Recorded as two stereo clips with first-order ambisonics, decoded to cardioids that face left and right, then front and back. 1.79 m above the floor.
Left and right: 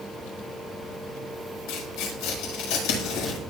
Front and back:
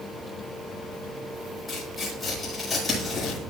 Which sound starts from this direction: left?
Tearing paper, at 1.7 s.